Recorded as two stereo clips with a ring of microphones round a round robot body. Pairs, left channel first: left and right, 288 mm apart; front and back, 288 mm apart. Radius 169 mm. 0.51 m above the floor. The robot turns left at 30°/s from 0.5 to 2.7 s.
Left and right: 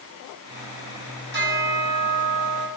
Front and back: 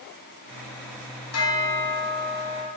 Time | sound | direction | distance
1.3 | a bell | 30° right | 5 m